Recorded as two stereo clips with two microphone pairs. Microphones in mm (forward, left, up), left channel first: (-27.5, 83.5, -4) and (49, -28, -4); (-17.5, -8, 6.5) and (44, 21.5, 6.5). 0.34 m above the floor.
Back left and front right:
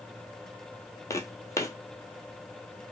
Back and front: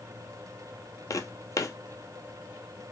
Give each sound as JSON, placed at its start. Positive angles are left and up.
{"t": 1.1, "sound": "footsteps", "azimuth_deg": -175, "distance_m": 0.5}